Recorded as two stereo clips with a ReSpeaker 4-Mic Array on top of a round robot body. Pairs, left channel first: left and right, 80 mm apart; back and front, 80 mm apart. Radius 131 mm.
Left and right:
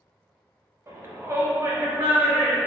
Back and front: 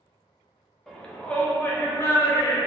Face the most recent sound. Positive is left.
turn(degrees=-155)